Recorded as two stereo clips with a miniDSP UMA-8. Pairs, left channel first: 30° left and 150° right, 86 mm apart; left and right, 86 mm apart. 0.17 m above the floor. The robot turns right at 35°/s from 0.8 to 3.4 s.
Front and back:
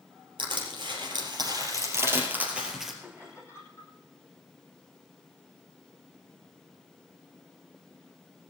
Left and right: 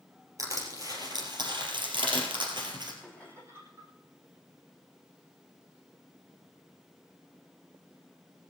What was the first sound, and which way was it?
Crushing, 135° right.